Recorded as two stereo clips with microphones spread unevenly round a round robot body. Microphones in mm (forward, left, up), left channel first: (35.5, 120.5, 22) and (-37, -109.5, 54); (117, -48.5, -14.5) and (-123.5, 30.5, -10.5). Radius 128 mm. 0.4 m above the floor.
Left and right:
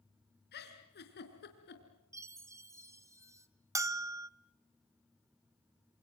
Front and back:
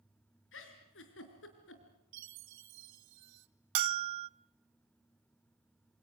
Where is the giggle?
25° left, 4.5 m.